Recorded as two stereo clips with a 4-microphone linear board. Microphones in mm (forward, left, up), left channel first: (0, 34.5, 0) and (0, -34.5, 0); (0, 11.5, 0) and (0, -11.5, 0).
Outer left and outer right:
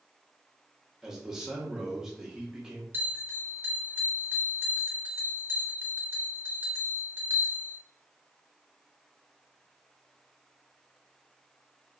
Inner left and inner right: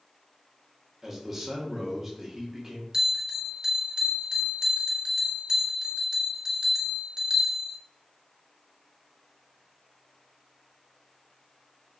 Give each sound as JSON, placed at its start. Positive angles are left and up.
{"t": 1.0, "sound": "a man speaking", "side_deg": -5, "distance_m": 0.8}
{"t": 2.9, "sound": "a bell", "side_deg": -35, "distance_m": 0.6}